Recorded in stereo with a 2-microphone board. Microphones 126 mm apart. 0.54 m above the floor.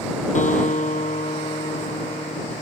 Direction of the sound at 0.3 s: 75° left (ahead or behind).